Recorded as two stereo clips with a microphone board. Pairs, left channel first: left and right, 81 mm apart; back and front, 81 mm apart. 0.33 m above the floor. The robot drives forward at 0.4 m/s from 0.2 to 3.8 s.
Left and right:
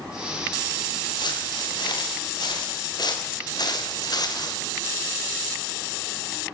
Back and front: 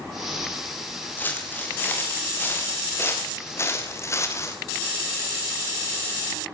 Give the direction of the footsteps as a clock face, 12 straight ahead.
8 o'clock.